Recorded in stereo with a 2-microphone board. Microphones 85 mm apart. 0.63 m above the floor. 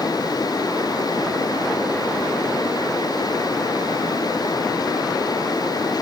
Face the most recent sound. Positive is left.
No sound to turn to.